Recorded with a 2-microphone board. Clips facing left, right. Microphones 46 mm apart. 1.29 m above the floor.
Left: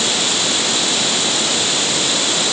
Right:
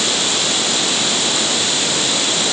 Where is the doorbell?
I don't hear a doorbell.